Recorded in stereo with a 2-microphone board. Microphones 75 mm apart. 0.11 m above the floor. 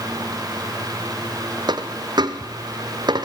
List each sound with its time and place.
1.7 s a dropped coin: 65° right (ahead or behind), 2 m